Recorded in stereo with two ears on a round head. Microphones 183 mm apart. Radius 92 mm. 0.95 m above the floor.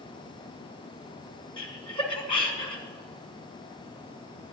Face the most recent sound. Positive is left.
turn(degrees=5)  # may be behind; listen again after turning